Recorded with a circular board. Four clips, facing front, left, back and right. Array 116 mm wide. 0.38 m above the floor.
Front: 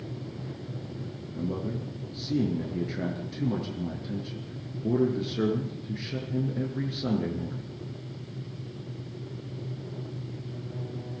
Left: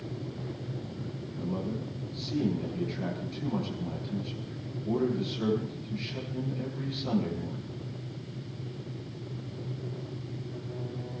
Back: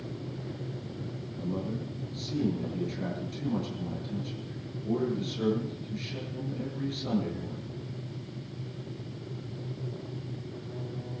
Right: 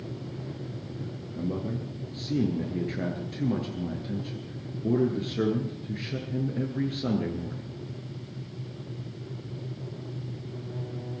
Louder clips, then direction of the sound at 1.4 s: Right 3 dB, front 2 dB; 50° right.